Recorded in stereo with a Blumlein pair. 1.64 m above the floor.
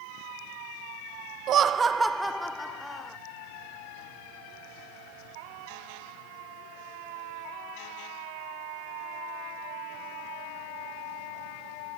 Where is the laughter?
35° right, 0.5 m; by 3.2 s 10° left, 1.4 m.